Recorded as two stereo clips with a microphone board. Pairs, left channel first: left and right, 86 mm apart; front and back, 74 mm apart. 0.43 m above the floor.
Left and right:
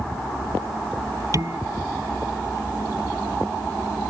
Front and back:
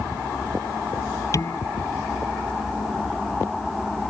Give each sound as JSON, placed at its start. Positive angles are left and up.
{"t": 1.3, "sound": "dishes clattering", "azimuth_deg": -45}